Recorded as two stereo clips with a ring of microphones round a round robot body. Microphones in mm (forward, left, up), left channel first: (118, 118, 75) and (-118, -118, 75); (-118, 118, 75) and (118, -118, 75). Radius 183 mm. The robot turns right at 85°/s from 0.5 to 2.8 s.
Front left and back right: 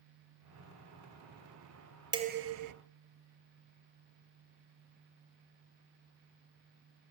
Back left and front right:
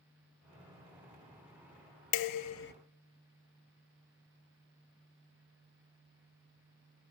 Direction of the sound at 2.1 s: 145° left.